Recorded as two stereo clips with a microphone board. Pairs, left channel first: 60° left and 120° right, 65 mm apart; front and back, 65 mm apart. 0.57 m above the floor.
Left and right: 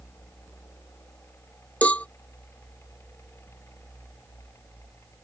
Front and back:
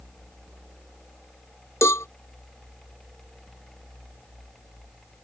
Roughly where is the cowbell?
Ahead.